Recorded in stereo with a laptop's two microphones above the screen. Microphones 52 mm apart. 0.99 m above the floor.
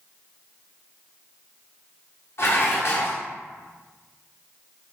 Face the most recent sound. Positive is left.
turn(degrees=55)  # may be behind; listen again after turning